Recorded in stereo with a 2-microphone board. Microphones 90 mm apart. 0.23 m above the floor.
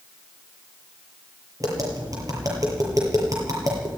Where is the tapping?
40° right (ahead or behind), 6.5 m.